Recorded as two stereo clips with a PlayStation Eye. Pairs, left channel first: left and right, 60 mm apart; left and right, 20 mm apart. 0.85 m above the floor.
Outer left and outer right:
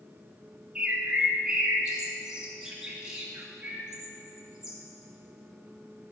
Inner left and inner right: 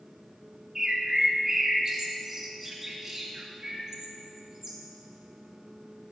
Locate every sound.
0.8 s a bird: 10° right (ahead or behind), 1.3 m